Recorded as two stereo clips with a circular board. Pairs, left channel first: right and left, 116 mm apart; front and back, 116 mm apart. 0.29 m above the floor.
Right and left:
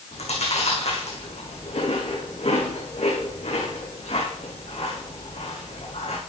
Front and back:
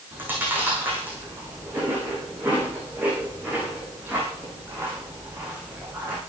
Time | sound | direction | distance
0.1 | chewing | 105° right | 8.5 m